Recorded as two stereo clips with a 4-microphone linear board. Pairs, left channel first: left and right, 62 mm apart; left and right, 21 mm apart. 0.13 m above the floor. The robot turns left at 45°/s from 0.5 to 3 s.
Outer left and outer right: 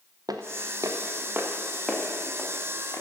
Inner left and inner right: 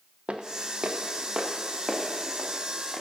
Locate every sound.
0.3 s footsteps: 80° right, 0.9 m; by 3.0 s 55° left (ahead or behind), 2 m